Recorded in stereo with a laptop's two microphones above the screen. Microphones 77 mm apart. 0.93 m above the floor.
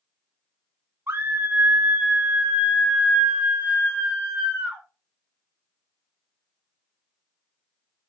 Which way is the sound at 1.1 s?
35° right (ahead or behind).